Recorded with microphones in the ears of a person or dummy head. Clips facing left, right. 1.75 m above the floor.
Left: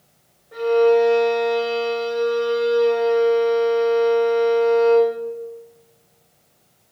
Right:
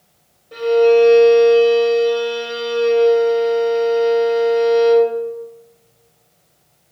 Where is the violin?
40° right (ahead or behind), 6 m.